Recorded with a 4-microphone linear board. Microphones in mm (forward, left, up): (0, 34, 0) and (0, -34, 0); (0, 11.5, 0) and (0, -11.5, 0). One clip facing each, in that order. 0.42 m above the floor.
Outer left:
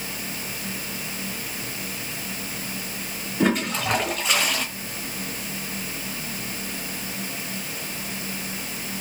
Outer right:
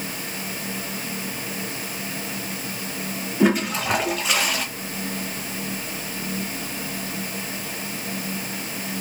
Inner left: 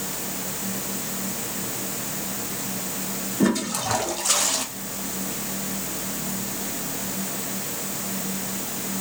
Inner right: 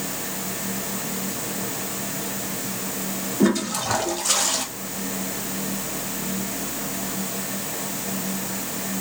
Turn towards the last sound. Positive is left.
turn(degrees=-5)  # may be behind; listen again after turning